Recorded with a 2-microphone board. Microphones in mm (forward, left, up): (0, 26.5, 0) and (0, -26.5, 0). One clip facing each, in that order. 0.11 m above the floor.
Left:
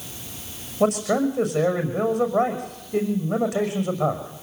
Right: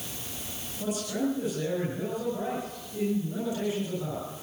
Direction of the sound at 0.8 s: 75° left (ahead or behind).